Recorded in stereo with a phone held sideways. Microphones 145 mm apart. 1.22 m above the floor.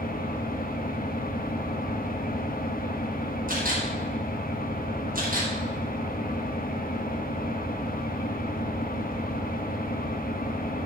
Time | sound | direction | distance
0.0 | an engine running | 85° left | 1.2 m
3.5 | a camera shutter | 75° right (ahead or behind) | 5 m